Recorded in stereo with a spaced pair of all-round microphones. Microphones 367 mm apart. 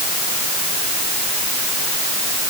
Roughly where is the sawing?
No sawing in this recording.